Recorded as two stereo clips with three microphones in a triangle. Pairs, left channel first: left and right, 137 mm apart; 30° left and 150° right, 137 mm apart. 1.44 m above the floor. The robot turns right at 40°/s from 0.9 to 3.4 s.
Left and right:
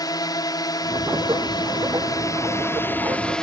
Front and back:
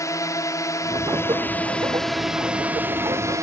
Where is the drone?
70° left; by 3.4 s 170° left.